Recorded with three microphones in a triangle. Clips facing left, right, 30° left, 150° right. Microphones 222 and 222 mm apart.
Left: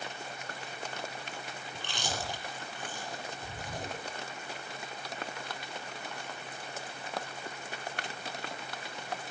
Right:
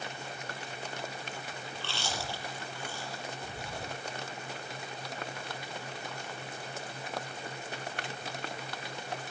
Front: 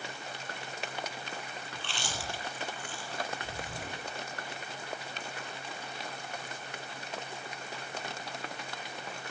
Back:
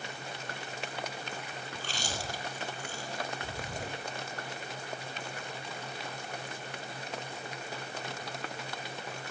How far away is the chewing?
About 6.5 m.